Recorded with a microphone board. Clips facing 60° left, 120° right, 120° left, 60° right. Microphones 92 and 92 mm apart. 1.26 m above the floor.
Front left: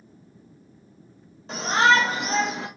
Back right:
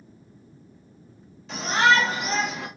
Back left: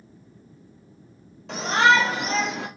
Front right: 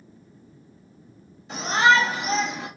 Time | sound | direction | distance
1.5 | a shout | 110° left | 2 m